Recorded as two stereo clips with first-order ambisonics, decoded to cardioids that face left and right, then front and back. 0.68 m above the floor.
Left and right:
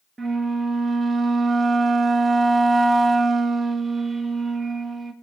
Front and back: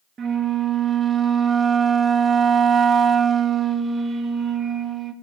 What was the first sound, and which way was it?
A flute, 155° right.